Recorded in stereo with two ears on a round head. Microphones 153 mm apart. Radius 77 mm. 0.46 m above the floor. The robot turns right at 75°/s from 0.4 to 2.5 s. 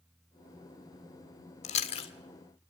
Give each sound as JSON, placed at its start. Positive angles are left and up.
{"t": 1.6, "sound": "chewing", "side_deg": 40, "distance_m": 1.6}